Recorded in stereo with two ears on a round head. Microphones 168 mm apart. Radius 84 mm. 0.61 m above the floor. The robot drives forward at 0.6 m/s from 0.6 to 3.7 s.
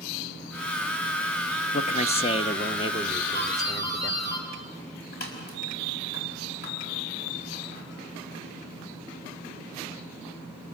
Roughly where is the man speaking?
Left.